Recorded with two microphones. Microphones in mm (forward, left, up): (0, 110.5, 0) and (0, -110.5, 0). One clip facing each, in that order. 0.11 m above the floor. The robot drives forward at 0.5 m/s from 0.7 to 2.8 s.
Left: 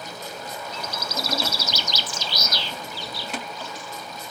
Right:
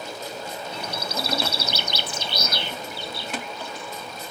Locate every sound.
0.7 s a bird: 65° right (ahead or behind); by 4.3 s 60° right (ahead or behind)